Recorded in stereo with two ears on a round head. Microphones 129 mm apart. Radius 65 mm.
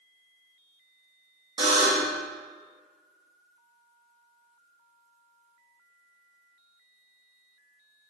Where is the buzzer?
35° right (ahead or behind), 1.2 m.